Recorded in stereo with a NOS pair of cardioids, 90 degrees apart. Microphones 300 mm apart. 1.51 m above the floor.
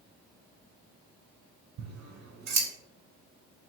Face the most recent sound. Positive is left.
turn(degrees=-70)